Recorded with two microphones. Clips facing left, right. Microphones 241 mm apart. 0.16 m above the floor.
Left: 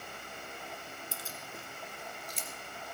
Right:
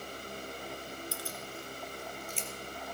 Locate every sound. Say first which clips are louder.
1.1 s keys jangling: right 4 dB; 20° left (ahead or behind), 1.5 m; by 2.5 s 45° left (ahead or behind), 2 m